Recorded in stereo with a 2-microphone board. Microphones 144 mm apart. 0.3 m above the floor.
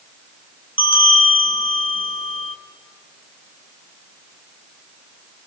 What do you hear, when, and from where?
0.8 s a bell: 40° left (ahead or behind), 3 m